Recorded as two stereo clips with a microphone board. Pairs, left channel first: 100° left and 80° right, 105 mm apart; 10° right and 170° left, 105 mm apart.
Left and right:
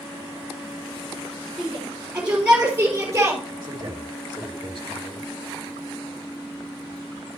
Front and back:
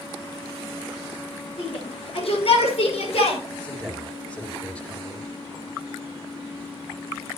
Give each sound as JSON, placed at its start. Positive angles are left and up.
{"t": 1.6, "sound": "a shout", "azimuth_deg": 5, "distance_m": 4.5}
{"t": 3.6, "sound": "a man speaking", "azimuth_deg": -85, "distance_m": 2.0}